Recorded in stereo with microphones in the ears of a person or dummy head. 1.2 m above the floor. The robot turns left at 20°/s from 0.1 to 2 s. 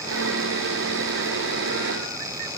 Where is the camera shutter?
I don't hear a camera shutter.